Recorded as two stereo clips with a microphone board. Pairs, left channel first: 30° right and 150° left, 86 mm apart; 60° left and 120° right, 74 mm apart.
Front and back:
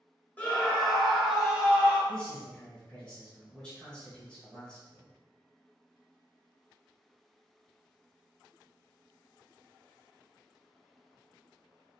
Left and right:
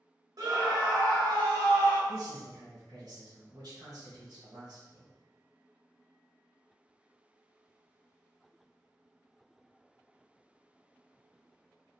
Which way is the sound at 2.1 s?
110° right.